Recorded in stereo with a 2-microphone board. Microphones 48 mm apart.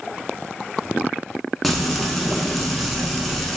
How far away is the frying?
About 0.6 m.